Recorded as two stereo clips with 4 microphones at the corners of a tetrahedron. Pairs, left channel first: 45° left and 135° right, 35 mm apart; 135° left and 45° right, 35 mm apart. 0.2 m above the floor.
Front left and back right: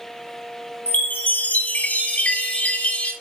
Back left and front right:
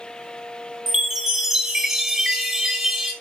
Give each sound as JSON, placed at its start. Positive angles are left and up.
{"t": 0.9, "sound": "a chime", "azimuth_deg": 30, "distance_m": 1.9}